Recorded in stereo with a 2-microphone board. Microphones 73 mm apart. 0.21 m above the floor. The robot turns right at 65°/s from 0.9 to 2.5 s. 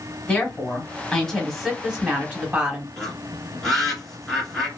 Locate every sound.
0.3 s a woman speaking: 15° left (ahead or behind), 1.3 m; by 2.9 s 20° right (ahead or behind), 1.3 m
3.0 s a bird: 5° left (ahead or behind), 1.5 m